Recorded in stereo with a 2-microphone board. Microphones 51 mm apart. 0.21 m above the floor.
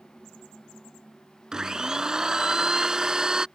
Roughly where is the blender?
Centre.